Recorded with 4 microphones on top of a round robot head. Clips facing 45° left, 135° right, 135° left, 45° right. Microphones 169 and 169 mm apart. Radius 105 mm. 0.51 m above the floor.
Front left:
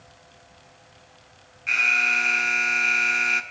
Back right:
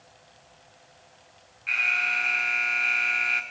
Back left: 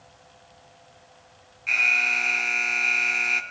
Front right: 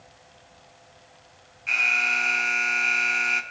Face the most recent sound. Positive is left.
turn(degrees=55)